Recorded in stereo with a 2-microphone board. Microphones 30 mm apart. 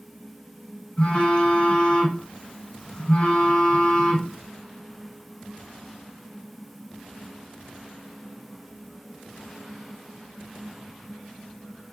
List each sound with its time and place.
1.0 s a phone buzzing: 30° left (ahead or behind), 1.2 m